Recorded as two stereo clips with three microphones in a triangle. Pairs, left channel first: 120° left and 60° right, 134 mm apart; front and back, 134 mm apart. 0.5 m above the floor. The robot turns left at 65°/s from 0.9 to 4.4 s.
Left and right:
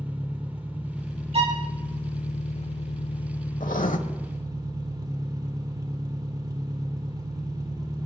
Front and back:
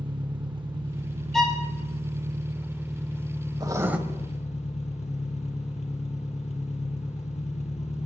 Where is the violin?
85° right, 2.0 m; by 1.6 s 105° right, 2.0 m.